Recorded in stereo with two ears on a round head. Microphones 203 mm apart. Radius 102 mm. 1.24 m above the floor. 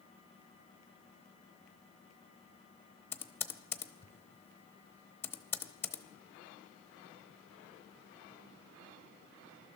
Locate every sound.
3.1 s typing on a keyboard: 10° left (ahead or behind), 0.8 m